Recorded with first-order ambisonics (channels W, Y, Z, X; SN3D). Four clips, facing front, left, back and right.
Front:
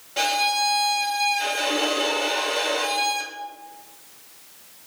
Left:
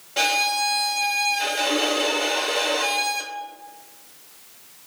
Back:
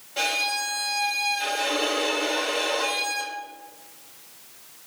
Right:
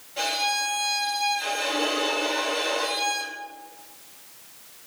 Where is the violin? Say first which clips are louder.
Left 4 dB, front 4 dB; 70° left, 0.6 m.